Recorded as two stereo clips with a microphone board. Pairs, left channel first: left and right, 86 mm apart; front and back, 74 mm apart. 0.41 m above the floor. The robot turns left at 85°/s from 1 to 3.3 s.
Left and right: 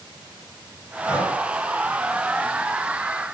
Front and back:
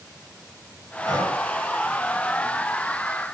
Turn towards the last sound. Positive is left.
turn(degrees=-150)